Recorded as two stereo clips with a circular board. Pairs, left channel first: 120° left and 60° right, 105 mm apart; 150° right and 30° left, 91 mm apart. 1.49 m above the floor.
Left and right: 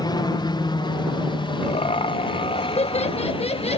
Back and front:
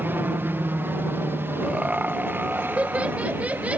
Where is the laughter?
105° left.